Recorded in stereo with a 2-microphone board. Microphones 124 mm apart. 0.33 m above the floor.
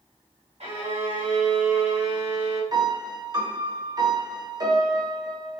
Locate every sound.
0.6 s a violin: 55° right (ahead or behind), 1.3 m
2.7 s a piano: 30° right (ahead or behind), 0.6 m